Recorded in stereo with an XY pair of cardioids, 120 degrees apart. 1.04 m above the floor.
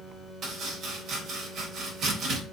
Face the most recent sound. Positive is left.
turn(degrees=-60)